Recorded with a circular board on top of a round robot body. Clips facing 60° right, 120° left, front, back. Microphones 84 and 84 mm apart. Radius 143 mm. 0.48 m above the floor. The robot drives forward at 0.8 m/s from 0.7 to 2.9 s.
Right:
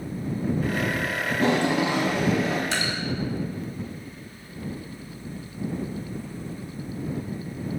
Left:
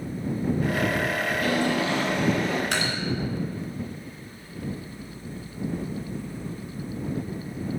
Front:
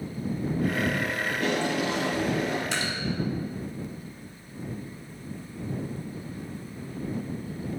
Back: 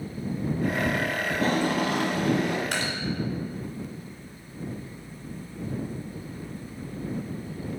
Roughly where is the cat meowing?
I don't hear a cat meowing.